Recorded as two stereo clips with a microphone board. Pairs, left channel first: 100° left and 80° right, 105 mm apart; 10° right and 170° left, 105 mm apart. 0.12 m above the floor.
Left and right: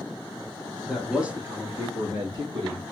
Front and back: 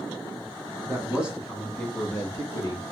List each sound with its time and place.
0.9 s a man speaking: 170° right, 1.1 m; by 2.9 s 70° right, 1.8 m